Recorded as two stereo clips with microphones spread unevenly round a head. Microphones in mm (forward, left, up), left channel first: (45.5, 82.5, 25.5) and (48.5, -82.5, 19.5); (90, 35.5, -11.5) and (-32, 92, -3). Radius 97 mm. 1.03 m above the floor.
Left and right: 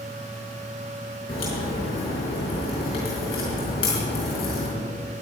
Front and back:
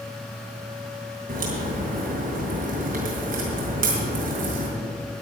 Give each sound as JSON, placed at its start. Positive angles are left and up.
{"t": 1.3, "sound": "a crack", "azimuth_deg": 155, "distance_m": 4.5}